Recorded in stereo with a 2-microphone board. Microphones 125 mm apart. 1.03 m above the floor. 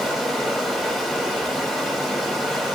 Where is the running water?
Centre (ahead or behind), 3 m.